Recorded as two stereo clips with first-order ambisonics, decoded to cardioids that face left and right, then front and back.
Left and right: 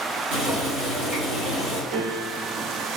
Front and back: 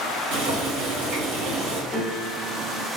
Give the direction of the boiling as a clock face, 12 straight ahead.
5 o'clock.